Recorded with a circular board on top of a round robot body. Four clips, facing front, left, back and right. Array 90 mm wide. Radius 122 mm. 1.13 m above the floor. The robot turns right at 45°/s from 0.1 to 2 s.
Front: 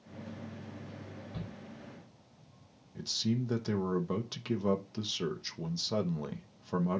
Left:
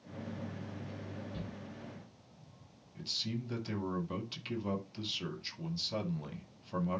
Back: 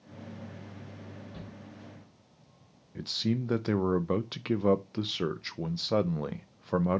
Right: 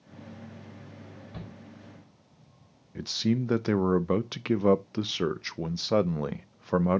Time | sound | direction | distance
1.3 | a shout | 90° right | 3 m
3.0 | a man speaking | 110° right | 0.5 m